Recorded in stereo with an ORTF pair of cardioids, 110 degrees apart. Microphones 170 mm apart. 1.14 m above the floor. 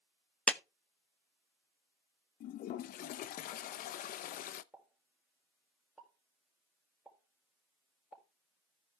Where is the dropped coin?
I don't hear a dropped coin.